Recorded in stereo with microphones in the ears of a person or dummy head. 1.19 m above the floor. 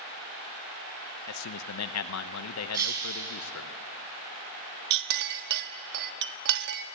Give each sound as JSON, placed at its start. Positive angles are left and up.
{"t": 1.3, "sound": "a man speaking", "side_deg": 85, "distance_m": 0.7}
{"t": 2.7, "sound": "breaking glass", "side_deg": -20, "distance_m": 6.0}
{"t": 4.9, "sound": "a clink", "side_deg": -60, "distance_m": 1.0}